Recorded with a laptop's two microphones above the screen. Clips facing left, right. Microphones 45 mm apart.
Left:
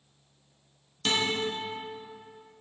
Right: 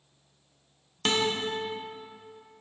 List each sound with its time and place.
1.1 s a guitar: 35° right (ahead or behind), 1.1 m